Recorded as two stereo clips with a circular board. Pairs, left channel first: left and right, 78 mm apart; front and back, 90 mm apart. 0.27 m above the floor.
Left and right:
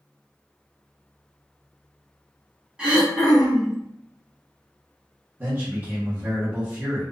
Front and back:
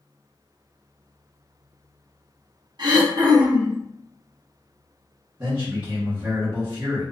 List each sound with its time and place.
2.8 s throat clearing: 165° right, 1.1 m
5.4 s a man speaking: 120° right, 1.4 m